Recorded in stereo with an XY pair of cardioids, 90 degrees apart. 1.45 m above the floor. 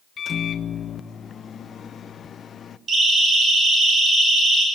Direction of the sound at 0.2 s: 50° left.